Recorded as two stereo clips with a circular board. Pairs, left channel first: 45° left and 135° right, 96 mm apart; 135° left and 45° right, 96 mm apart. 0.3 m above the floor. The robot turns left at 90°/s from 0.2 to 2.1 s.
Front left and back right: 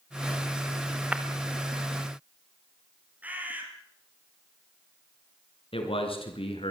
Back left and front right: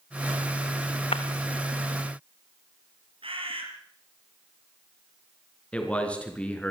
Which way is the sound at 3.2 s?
60° right.